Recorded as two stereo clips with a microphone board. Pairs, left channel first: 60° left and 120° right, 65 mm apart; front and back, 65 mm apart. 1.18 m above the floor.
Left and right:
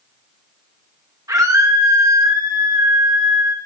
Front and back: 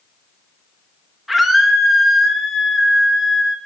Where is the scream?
95° right, 1.7 m.